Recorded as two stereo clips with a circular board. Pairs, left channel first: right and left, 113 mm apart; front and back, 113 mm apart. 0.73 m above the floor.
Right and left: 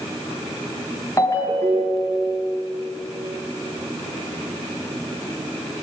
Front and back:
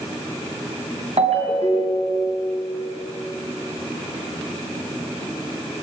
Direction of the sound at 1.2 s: 150° right.